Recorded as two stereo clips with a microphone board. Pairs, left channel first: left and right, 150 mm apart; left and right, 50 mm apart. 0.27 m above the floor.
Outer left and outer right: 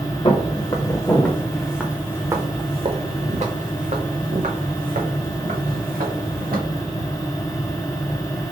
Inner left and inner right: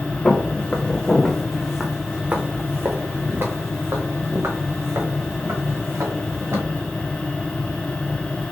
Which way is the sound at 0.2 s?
35° left (ahead or behind).